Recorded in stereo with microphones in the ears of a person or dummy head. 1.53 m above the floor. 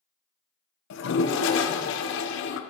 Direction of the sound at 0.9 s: 80° left.